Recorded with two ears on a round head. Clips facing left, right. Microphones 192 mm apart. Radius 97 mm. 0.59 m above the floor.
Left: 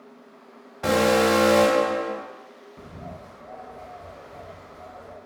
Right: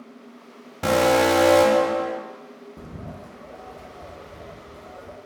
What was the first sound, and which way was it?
An alarm, 45° right (ahead or behind).